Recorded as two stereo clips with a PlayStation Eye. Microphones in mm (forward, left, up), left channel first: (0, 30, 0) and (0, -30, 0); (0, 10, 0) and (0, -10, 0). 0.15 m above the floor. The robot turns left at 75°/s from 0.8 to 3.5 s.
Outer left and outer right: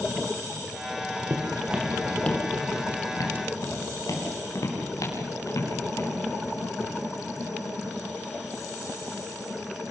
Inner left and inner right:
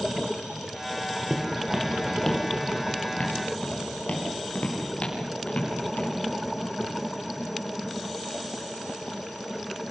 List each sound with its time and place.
1.3 s footsteps: 55° right (ahead or behind), 2.5 m; by 6.1 s 60° left (ahead or behind), 8 m